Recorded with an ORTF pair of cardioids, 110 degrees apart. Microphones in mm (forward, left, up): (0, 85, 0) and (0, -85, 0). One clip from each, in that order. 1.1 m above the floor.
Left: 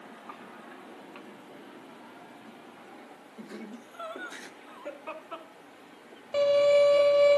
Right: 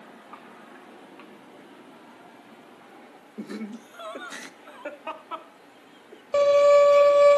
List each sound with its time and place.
3.4 s laughter: 60° right, 1.7 m; by 6.2 s 45° right, 3 m
6.3 s a violin: 45° right, 1.8 m